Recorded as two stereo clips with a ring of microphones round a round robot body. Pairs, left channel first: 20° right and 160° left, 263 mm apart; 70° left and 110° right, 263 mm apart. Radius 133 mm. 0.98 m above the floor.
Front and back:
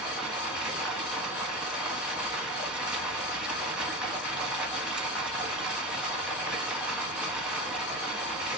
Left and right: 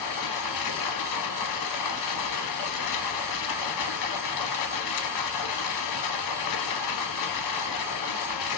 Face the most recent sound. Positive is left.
turn(degrees=70)